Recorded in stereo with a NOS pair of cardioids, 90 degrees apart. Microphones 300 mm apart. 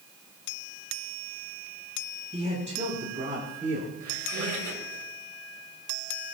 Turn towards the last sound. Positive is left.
turn(degrees=-65)